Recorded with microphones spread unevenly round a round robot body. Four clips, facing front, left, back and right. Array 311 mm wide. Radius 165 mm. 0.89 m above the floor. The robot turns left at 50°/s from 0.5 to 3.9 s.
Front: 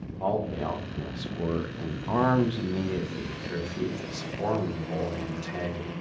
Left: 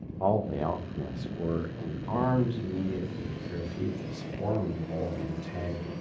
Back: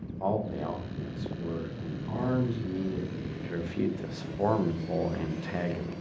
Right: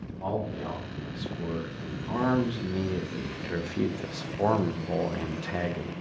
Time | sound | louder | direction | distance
0.2 | a man speaking | left 5 dB, front 2 dB | 70° left | 0.8 m